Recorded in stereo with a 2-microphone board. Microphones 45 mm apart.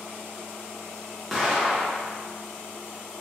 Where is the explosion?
5° right (ahead or behind), 0.8 m.